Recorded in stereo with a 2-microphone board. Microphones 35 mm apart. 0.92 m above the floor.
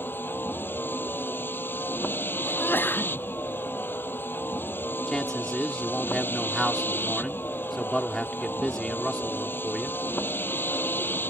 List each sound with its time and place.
0.0 s a vehicle: 85° left
2.4 s a sneeze: 85° left
5.1 s a man speaking: 20° left (ahead or behind)